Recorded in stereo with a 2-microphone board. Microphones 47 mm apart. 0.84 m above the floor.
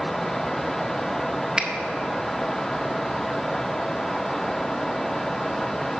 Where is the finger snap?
20° right (ahead or behind), 0.7 m.